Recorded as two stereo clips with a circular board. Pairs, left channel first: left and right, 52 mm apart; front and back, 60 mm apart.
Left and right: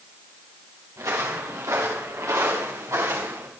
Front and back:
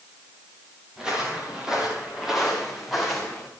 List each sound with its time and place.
1.0 s footsteps: 105° right, 7 m; by 3.5 s 85° right, 6 m